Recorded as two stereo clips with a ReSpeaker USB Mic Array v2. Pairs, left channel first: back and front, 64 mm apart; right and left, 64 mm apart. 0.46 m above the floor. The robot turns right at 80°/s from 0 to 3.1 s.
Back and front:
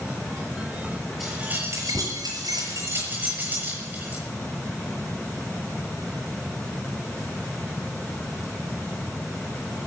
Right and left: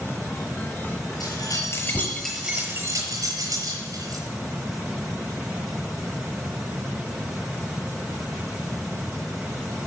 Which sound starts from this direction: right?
Keys jangling, at 1.2 s.